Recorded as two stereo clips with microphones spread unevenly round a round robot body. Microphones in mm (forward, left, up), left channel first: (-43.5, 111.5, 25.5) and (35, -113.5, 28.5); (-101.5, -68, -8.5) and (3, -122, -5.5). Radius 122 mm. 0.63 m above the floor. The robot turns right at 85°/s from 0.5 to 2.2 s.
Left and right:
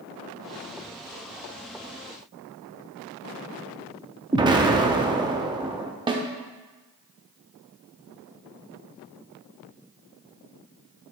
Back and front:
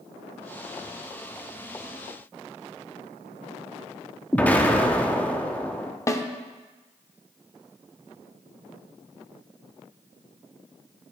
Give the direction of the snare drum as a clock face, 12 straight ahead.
5 o'clock.